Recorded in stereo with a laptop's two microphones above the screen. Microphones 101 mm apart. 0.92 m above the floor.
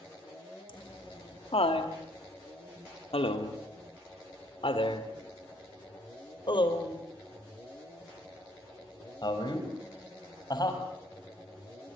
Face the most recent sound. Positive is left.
turn(degrees=45)  # may be behind; listen again after turning